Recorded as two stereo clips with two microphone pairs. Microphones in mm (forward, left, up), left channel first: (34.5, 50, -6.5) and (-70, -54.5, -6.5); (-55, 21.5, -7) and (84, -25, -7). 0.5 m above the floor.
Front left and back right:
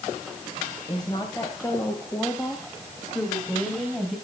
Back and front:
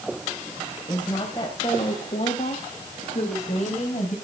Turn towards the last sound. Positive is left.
turn(degrees=135)